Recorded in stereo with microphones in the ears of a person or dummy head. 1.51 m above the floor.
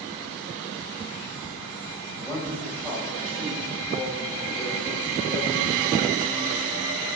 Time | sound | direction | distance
2.2 | a man speaking | 5° left (ahead or behind) | 7 m